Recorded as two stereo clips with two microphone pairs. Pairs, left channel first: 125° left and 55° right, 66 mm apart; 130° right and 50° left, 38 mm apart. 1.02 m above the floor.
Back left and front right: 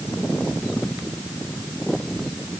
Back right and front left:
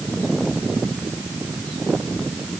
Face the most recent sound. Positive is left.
No sound to turn to.